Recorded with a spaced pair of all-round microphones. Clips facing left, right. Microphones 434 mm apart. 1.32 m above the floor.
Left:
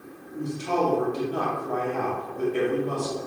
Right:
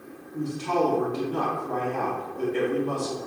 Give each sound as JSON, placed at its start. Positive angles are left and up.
{"t": 0.3, "sound": "a man speaking", "side_deg": -10, "distance_m": 2.0}